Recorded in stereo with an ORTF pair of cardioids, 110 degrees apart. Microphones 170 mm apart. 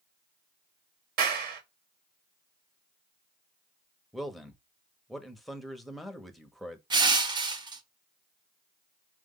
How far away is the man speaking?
About 1.1 m.